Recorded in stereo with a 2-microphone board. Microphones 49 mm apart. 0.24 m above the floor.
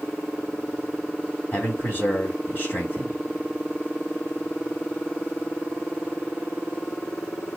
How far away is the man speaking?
About 2 m.